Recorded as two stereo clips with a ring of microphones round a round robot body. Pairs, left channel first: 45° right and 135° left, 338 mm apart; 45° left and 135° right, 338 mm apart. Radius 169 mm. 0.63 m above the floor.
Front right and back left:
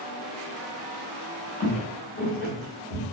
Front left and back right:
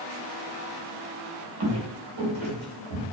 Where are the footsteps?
110° right, 0.9 m; by 3.0 s 105° right, 2 m.